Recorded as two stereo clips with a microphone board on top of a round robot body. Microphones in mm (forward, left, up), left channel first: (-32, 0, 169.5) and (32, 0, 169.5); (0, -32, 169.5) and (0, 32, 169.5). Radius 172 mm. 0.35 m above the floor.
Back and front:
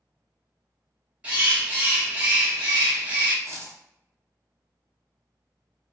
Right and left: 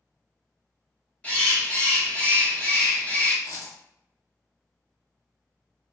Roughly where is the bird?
Ahead right.